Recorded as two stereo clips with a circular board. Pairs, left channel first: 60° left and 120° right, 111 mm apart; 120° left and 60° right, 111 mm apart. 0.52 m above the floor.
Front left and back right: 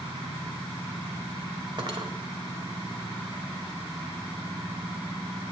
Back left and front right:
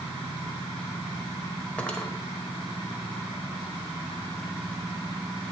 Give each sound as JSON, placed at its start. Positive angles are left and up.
{"t": 1.8, "sound": "cutlery clinking", "azimuth_deg": -160, "distance_m": 1.3}